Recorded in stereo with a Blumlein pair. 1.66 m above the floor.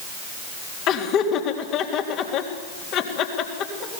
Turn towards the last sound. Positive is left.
turn(degrees=35)